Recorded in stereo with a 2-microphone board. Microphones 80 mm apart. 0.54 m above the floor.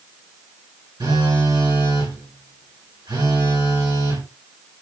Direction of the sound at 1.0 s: 80° right.